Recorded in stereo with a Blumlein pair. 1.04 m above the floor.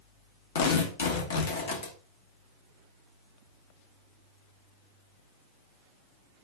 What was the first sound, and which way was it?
Tearing paper, 60° left.